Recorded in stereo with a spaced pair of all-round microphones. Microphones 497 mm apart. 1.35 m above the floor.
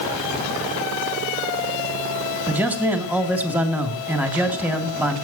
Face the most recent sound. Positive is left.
turn(degrees=-5)  # may be behind; listen again after turning